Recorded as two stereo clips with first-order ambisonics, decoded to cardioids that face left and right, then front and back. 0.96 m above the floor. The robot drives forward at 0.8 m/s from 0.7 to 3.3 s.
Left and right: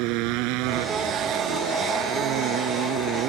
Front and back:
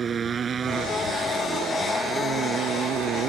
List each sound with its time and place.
0.0 s a motorcycle: 110° right; by 3.3 s 130° right